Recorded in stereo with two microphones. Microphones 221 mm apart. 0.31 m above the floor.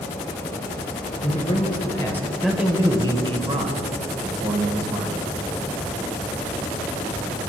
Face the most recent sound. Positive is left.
turn(degrees=-55)  # may be behind; listen again after turning